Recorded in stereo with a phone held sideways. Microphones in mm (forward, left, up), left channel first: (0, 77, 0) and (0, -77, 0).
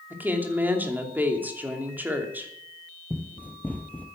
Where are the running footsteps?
10° left (ahead or behind), 1.5 m.